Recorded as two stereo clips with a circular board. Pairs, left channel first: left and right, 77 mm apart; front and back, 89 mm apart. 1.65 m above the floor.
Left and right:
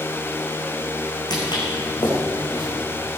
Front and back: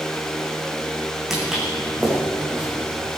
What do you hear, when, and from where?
1.3 s footsteps: 90° left, 4 m; by 2.6 s 95° left, 5.5 m